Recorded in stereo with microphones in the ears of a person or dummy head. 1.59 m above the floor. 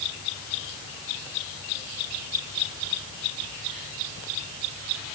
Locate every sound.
Only background noise.